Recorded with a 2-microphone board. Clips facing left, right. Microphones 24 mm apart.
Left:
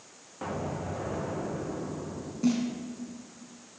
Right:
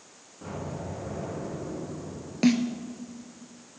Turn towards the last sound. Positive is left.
turn(degrees=-60)  # may be behind; listen again after turning